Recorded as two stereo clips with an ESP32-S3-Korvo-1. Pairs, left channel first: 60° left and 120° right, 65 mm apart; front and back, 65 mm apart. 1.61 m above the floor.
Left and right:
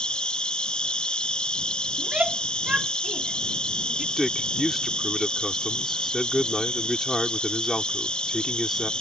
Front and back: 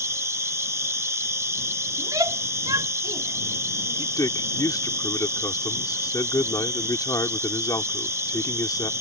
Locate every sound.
0.0 s an insect: 135° left
2.0 s a shout: 170° left
4.2 s a man speaking: 30° right